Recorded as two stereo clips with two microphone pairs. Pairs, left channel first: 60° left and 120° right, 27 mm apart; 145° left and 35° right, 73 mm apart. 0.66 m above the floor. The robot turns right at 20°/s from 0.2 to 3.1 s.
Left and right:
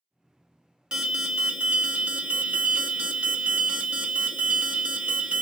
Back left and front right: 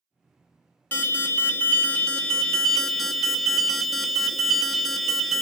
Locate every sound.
0.9 s an alarm: 165° right, 0.7 m; by 5.4 s 120° right, 0.7 m